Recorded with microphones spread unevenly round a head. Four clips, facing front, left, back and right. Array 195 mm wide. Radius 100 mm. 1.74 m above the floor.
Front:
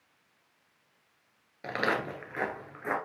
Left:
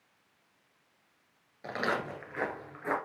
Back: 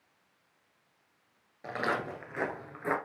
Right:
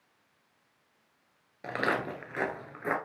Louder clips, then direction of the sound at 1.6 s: Right 2 dB, front 2 dB; 40° right.